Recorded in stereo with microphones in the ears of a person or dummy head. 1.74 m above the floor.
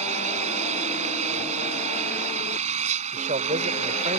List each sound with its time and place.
0.0 s an engine running: 40° right (ahead or behind)
3.1 s a man speaking: 40° right (ahead or behind)